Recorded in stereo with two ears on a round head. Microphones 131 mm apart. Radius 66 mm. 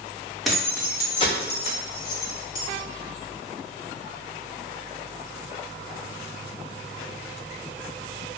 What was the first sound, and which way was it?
Keys jangling, centre (ahead or behind).